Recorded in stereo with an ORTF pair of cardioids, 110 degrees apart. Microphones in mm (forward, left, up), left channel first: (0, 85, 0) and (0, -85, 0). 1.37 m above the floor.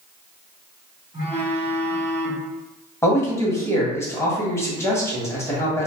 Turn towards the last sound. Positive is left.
turn(degrees=15)